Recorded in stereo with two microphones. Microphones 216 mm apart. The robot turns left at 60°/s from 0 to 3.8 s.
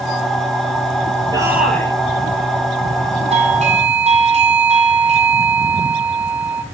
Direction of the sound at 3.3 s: 30° right (ahead or behind).